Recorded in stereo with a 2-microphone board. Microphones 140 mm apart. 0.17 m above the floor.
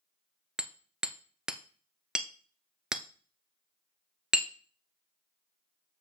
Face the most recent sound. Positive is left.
turn(degrees=-5)  # may be behind; listen again after turning